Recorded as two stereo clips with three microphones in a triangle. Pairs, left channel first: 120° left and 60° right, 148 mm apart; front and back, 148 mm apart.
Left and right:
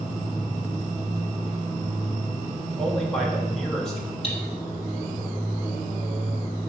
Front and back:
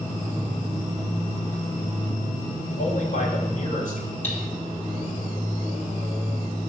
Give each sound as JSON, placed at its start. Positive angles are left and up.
{"t": 2.8, "sound": "a man speaking", "azimuth_deg": 35, "distance_m": 2.5}
{"t": 4.2, "sound": "cutlery clinking", "azimuth_deg": 75, "distance_m": 2.5}